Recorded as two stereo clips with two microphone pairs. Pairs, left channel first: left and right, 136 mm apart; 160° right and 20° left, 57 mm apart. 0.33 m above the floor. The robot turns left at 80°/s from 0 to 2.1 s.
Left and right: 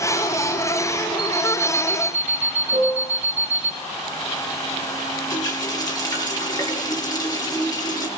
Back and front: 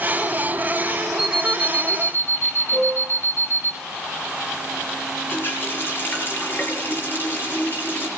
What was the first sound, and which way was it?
An alarm clock, 45° right.